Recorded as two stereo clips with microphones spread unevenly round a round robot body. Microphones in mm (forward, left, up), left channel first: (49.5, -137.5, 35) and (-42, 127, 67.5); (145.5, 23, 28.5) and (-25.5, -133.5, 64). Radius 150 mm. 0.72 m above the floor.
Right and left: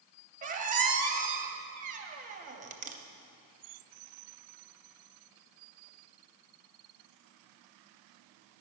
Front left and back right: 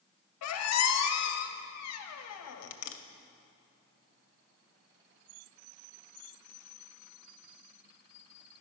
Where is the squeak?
45° left, 0.6 m.